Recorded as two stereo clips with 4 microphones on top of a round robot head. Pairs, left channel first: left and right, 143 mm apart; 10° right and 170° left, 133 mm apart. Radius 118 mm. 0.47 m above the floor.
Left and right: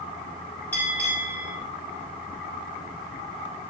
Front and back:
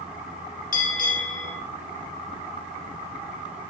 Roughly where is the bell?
Ahead.